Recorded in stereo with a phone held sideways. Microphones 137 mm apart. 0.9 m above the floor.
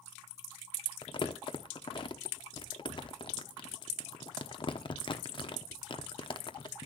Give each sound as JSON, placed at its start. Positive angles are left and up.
{"t": 1.0, "sound": "crumpling", "side_deg": 35, "distance_m": 0.9}